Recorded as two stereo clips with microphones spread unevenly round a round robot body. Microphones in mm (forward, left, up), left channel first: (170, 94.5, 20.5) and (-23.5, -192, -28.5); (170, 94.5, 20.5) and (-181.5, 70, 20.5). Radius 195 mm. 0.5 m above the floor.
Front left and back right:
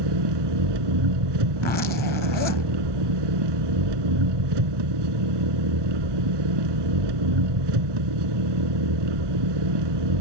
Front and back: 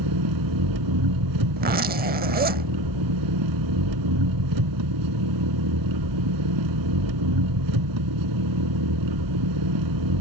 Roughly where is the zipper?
Behind left.